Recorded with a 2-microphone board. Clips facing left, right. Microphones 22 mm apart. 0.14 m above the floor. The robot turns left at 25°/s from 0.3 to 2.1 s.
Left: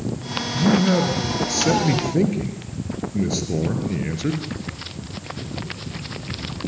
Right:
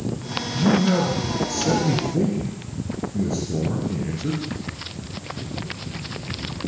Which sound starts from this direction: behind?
A man speaking, at 0.5 s.